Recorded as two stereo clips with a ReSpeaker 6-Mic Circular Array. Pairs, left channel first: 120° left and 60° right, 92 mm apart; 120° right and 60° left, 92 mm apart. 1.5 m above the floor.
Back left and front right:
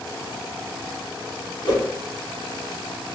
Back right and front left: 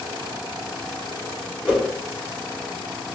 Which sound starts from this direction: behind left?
A whoosh, at 1.6 s.